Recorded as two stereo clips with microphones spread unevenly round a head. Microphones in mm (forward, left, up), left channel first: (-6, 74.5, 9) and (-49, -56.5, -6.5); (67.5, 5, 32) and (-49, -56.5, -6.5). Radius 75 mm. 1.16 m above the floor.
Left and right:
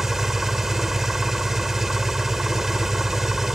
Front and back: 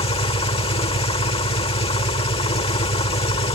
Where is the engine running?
20° right.